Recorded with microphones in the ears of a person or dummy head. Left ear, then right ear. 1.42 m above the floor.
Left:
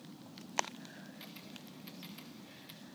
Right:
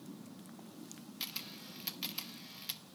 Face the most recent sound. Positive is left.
turn(degrees=-30)  # may be behind; listen again after turning